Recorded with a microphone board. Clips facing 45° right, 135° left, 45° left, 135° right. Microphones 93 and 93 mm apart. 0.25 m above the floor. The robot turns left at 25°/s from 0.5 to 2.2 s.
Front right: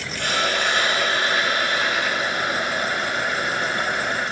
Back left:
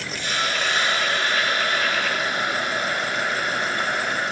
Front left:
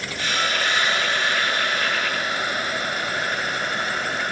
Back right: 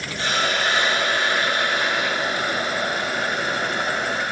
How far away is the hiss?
About 8 m.